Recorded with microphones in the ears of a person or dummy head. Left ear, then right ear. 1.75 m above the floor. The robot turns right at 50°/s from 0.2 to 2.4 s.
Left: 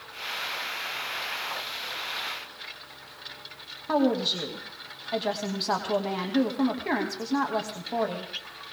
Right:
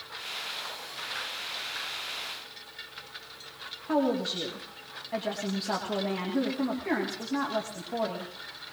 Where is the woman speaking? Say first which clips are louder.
Left 3 dB; 30° left (ahead or behind), 2 m.